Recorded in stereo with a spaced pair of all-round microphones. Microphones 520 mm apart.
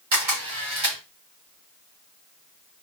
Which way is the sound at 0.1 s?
65° right (ahead or behind).